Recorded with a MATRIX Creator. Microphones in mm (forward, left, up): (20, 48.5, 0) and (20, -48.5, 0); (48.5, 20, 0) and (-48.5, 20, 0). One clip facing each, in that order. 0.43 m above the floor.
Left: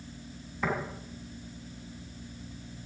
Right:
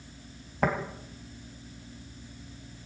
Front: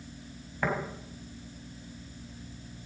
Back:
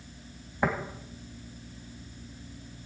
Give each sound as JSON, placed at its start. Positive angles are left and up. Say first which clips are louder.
{"t": 0.6, "sound": "tapping", "louder": "right 4 dB, back 2 dB", "azimuth_deg": -110, "distance_m": 3.5}